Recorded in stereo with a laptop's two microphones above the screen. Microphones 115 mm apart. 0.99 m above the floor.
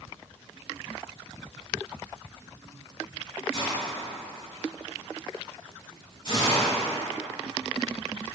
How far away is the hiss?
About 1.8 m.